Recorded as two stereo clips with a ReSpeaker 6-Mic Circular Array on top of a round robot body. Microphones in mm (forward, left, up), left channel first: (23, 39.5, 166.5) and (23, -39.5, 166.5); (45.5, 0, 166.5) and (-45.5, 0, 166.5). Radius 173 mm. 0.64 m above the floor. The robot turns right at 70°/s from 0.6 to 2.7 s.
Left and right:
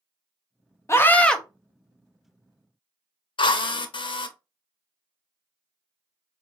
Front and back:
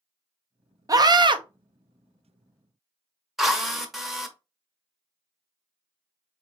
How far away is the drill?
About 0.8 m.